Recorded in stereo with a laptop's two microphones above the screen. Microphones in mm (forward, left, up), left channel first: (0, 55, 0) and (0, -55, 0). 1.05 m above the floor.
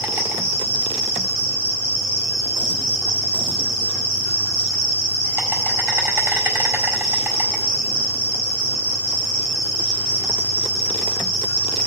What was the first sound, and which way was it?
An insect, 25° right (ahead or behind).